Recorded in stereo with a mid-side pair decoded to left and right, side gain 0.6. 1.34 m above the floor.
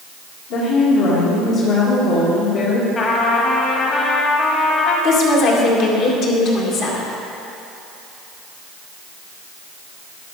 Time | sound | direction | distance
0.5 | a woman speaking | 70° left | 2 m
3.0 | a trumpet | 40° left | 1.6 m
5.0 | a woman speaking | 65° left | 1.9 m